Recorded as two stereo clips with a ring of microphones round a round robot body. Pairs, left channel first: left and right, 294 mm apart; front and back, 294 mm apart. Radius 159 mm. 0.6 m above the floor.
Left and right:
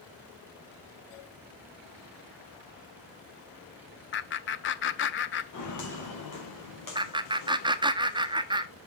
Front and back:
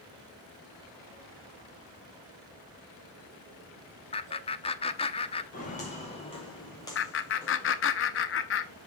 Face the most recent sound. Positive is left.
turn(degrees=-20)